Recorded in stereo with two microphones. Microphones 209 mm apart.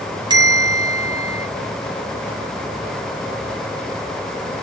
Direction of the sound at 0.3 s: 20° right (ahead or behind).